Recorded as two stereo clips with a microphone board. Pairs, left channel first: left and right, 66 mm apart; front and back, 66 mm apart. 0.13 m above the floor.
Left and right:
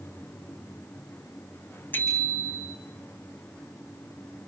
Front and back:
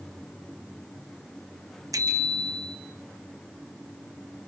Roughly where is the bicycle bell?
Behind left.